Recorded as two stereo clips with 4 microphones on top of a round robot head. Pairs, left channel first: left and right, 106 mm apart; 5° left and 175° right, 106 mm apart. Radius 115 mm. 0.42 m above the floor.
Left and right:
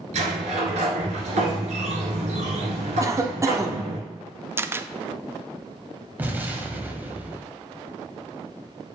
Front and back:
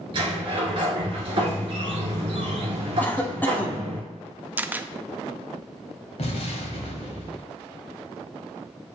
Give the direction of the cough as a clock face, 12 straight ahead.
2 o'clock.